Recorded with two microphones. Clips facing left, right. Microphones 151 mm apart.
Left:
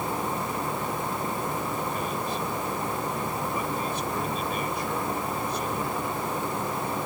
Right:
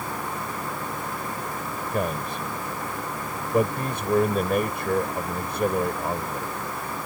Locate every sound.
1.9 s a man speaking: 60° right (ahead or behind)